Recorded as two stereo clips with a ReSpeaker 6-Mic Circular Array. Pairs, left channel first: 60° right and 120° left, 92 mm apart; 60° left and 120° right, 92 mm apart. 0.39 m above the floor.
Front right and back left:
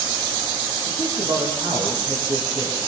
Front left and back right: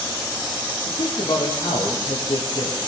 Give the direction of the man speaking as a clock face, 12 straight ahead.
9 o'clock.